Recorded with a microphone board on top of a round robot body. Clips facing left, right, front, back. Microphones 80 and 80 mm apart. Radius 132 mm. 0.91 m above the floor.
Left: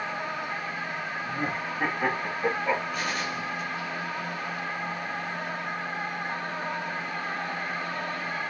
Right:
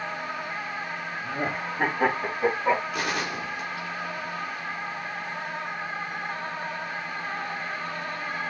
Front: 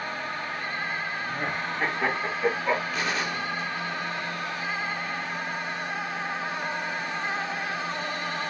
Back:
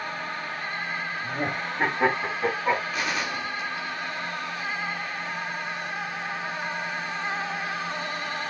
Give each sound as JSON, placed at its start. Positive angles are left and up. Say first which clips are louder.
{"t": 1.2, "sound": "laughter", "louder": "right 3 dB, back 1 dB", "azimuth_deg": -130, "distance_m": 5.0}
{"t": 2.9, "sound": "a gunshot", "louder": "right 2 dB, even", "azimuth_deg": -95, "distance_m": 3.0}